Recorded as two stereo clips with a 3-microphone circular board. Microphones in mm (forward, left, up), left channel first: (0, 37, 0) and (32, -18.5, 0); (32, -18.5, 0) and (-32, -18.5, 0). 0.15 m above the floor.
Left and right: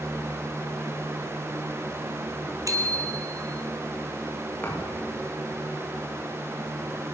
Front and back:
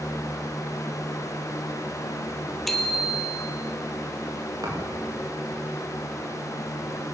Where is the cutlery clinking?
No cutlery clinking in this recording.